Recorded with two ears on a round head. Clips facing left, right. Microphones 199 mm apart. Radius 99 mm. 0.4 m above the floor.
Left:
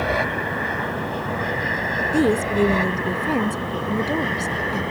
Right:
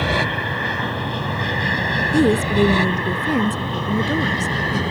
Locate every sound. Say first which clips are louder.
0.0 s an aircraft: right 1 dB; 50° right (ahead or behind); by 4.9 s 55° right (ahead or behind)
2.1 s a woman speaking: right 2 dB; 15° right (ahead or behind)